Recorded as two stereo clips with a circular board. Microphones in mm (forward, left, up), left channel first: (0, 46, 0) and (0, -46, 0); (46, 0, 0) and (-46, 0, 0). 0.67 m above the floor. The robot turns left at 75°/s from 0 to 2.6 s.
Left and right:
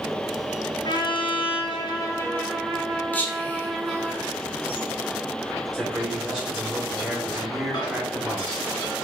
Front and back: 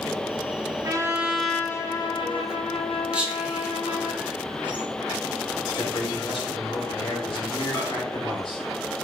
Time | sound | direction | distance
0.8 | a trumpet | 130° left | 0.6 m
3.1 | whispering | 120° left | 0.9 m
5.7 | a man speaking | straight ahead | 1.9 m
7.7 | a microwave | 60° left | 1.7 m